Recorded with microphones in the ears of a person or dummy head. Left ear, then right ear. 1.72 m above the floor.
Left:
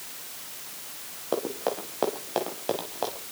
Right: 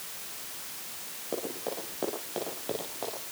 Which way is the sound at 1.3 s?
40° left (ahead or behind).